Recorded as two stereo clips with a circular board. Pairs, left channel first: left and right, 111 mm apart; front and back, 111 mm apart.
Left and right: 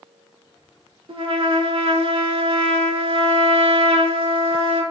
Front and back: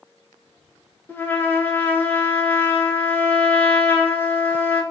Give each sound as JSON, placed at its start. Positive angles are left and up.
{"t": 1.1, "sound": "a trumpet", "azimuth_deg": -70, "distance_m": 0.5}